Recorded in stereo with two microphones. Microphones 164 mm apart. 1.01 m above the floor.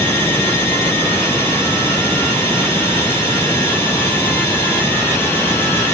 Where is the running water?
15° left (ahead or behind).